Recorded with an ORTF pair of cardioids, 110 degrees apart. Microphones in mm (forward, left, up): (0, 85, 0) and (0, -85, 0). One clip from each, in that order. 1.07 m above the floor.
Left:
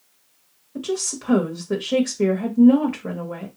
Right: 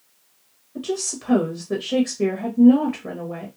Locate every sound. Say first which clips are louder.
0.8 s a woman speaking: left 1 dB; 15° left, 0.7 m